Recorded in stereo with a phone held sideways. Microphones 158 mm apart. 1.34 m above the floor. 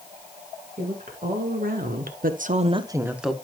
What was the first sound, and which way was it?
A woman speaking, 60° right (ahead or behind).